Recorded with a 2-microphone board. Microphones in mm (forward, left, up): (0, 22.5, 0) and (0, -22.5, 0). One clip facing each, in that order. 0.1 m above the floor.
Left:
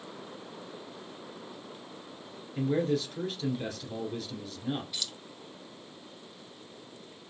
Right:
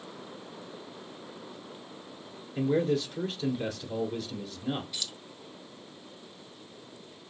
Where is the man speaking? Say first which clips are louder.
Right 2 dB; 5° right (ahead or behind), 1.5 m.